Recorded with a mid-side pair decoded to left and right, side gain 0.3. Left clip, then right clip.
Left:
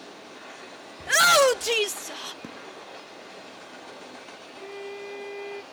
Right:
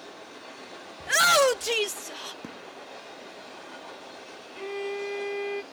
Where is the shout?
25° left.